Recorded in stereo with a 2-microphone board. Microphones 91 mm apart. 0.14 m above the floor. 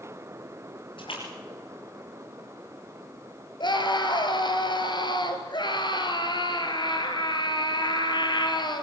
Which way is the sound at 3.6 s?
60° left (ahead or behind).